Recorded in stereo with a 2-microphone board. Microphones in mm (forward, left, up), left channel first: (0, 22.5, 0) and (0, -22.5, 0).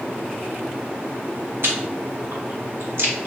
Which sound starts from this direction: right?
Chewing, at 1.6 s.